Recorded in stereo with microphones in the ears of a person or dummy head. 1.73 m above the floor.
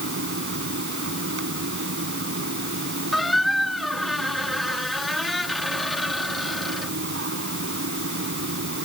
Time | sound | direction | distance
0.0 | a fan | 65° right (ahead or behind) | ?
3.1 | a squeak | centre (ahead or behind) | ?